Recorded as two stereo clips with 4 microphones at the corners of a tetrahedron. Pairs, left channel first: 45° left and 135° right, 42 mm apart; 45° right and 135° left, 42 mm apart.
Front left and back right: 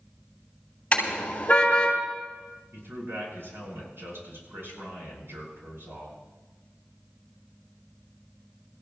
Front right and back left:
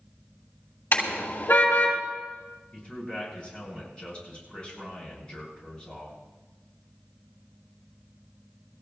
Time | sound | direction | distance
0.9 | a car horn | 20° right | 6.5 m
2.7 | a man speaking | 110° right | 8 m